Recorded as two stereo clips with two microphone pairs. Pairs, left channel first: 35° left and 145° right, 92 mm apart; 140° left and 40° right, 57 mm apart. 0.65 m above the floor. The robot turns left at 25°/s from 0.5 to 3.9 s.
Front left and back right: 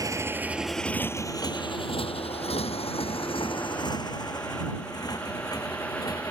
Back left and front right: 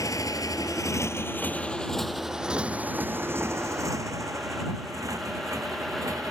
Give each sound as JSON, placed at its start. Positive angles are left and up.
{"t": 0.0, "sound": "a motorcycle", "azimuth_deg": 160}